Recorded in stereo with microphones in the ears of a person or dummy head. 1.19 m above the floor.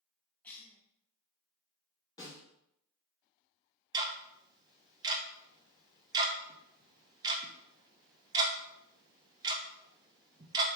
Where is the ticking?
20° right (ahead or behind), 0.6 m.